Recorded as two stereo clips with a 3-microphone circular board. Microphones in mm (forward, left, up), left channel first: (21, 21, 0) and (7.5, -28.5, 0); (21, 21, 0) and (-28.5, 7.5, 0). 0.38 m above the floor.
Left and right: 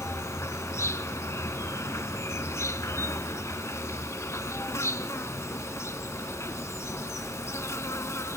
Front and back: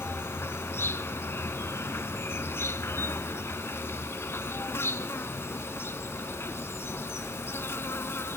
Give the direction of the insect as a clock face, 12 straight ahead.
10 o'clock.